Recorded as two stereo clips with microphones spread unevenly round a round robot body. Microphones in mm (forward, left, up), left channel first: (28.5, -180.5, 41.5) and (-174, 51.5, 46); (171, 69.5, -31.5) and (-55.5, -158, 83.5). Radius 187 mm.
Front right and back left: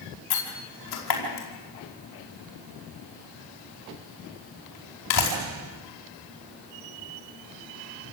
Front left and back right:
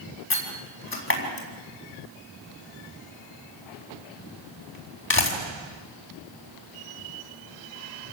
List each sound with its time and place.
0.3 s a door slam: 5° right, 4.5 m